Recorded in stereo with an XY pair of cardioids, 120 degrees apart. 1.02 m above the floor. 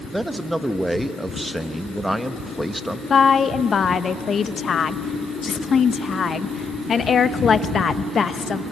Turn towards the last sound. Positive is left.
turn(degrees=40)